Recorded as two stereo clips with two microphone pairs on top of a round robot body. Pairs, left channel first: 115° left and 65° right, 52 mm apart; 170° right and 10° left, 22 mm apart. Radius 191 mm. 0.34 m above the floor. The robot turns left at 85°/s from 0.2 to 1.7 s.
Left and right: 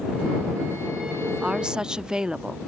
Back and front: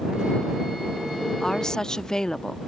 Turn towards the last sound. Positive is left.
turn(degrees=-145)